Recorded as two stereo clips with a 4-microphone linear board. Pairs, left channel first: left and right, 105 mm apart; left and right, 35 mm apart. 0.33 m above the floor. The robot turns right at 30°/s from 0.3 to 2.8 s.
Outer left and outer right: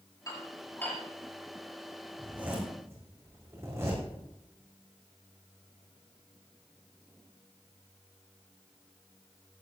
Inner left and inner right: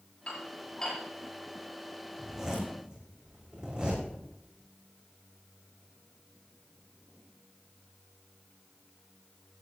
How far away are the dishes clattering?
About 5 m.